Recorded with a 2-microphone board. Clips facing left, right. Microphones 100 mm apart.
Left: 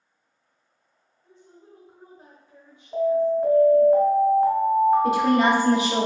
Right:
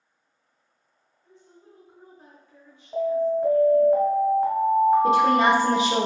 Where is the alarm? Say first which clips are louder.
Left 2 dB; 5° right (ahead or behind), 1.2 m.